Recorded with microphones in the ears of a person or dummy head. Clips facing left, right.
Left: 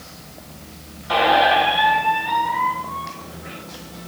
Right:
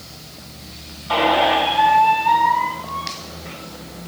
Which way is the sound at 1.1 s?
20° left (ahead or behind).